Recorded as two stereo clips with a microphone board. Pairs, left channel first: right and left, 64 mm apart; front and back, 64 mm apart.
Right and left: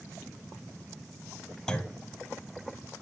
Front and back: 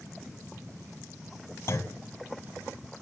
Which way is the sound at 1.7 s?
15° right.